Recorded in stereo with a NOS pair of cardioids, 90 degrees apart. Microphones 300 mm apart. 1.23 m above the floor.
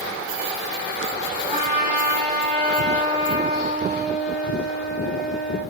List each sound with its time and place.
1.5 s a trumpet: 30° right, 2.0 m